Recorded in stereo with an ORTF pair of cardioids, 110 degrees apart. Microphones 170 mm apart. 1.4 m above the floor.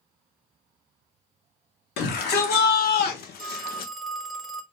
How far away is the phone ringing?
About 1.1 m.